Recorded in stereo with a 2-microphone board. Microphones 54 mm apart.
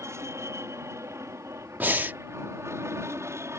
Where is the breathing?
35° right (ahead or behind).